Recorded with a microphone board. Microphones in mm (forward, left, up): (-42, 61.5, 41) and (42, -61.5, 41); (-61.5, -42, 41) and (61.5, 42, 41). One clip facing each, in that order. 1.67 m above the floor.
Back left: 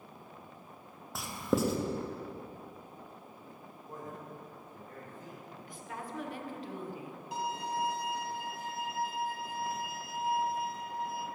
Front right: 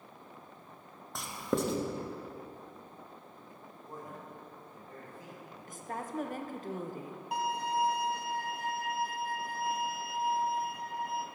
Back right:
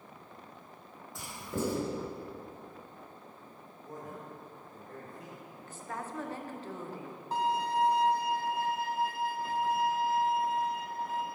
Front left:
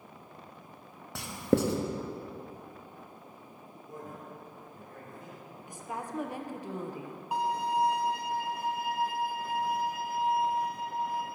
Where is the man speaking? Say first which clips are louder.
Back left 1 dB, even; 135° right, 2.5 m.